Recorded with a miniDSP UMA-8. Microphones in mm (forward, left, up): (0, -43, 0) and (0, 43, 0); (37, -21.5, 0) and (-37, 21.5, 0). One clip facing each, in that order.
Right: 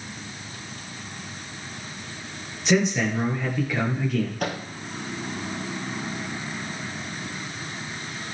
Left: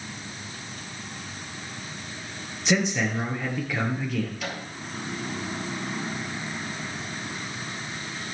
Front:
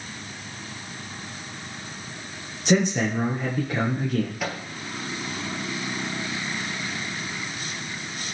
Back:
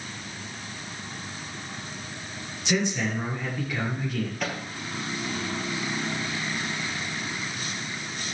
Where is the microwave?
115° right, 1.8 m.